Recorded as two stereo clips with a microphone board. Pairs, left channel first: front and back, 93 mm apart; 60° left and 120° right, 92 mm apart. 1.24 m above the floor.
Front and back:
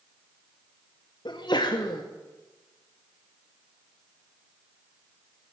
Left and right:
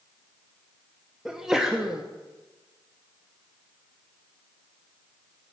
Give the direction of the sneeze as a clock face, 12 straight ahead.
1 o'clock.